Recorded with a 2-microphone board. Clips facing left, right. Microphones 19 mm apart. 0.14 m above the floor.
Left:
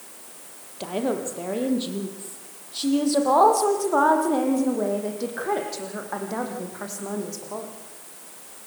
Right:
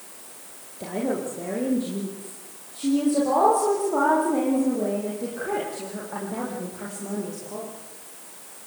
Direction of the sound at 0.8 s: 65° left (ahead or behind).